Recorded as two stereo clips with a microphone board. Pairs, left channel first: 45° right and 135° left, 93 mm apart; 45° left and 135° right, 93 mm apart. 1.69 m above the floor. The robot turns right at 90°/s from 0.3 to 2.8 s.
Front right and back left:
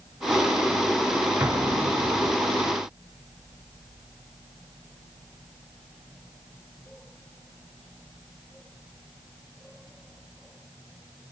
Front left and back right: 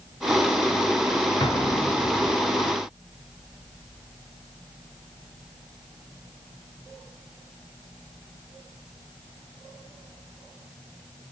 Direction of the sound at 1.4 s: 70° left.